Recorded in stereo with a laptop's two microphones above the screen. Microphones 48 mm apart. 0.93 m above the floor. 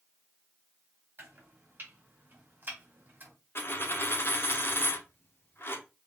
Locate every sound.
1.2 s chopping: 45° right (ahead or behind), 1.9 m
3.5 s a dropped coin: 50° left (ahead or behind), 0.7 m